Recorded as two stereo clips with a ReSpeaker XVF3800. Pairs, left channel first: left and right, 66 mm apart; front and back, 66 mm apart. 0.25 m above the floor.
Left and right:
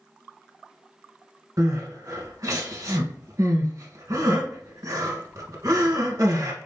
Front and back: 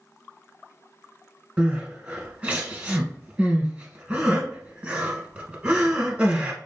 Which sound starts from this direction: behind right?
Crying, at 1.6 s.